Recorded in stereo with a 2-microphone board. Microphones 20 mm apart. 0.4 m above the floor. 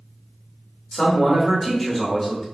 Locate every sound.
0.9 s a man speaking: centre (ahead or behind), 1.0 m